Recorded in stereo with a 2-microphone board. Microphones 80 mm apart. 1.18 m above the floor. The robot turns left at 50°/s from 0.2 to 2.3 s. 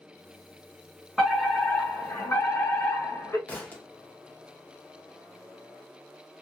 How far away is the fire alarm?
About 1.4 m.